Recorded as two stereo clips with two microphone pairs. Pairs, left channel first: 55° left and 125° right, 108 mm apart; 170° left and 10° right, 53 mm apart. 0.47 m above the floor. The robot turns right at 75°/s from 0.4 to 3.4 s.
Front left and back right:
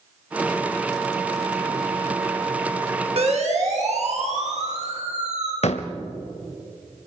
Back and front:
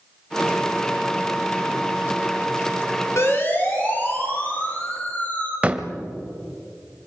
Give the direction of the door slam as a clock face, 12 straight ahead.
10 o'clock.